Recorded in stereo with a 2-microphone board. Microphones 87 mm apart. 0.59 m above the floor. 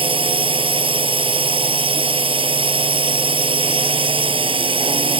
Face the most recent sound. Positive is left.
turn(degrees=-85)